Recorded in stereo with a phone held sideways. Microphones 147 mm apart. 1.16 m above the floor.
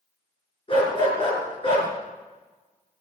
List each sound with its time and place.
0.7 s a dog barking: 35° left (ahead or behind), 4.5 m